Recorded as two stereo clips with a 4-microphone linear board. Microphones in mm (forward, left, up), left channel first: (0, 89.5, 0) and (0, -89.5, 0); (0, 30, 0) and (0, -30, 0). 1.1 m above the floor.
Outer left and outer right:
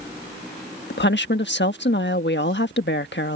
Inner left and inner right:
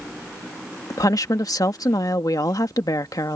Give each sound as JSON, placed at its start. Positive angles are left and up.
{"t": 0.9, "sound": "a woman speaking", "side_deg": 85}